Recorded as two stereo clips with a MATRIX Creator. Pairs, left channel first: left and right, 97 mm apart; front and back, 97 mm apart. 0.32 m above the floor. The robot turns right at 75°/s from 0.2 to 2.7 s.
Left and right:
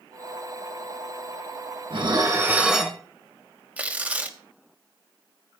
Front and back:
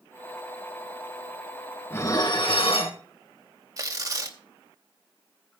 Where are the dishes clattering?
65° right, 2 m; by 3.0 s 5° right, 2 m.